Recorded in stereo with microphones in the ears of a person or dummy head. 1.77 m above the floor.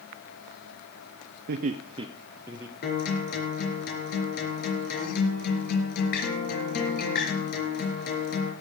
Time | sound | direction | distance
1.5 | laughter | 55° right (ahead or behind) | 0.7 m
2.8 | a guitar | 55° left (ahead or behind) | 4.5 m